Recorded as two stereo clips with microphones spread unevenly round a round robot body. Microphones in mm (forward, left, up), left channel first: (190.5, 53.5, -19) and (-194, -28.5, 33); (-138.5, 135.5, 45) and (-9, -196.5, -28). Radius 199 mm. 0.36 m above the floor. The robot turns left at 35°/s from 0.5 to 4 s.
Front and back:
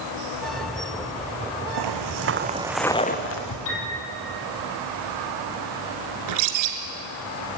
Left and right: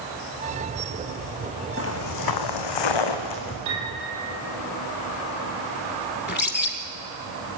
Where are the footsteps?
165° left, 1.7 m; by 3.5 s 60° left, 1.9 m.